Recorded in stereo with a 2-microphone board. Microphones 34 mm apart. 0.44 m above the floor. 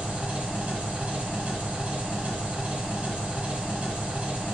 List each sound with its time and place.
0.0 s an engine running: 40° right (ahead or behind), 1.2 m